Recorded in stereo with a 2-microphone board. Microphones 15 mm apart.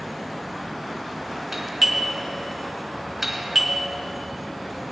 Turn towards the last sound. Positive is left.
turn(degrees=-25)  # may be behind; listen again after turning